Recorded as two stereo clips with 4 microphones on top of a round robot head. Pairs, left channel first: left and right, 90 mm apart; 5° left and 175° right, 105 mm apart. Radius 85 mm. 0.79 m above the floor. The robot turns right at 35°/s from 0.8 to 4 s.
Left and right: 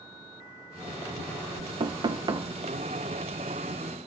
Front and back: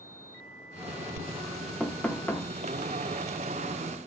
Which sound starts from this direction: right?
Knocking, at 1.8 s.